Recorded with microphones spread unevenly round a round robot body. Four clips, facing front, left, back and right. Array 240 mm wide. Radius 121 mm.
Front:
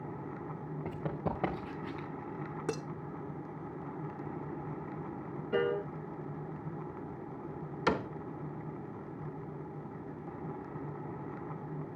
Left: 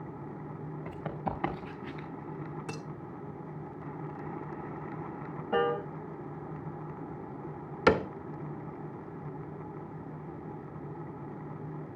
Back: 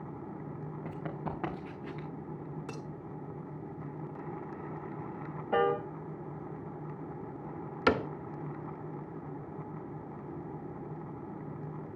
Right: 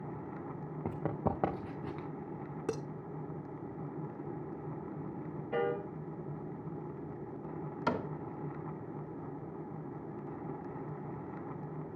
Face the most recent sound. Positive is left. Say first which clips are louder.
# left 10 dB, back 4 dB
turn(degrees=105)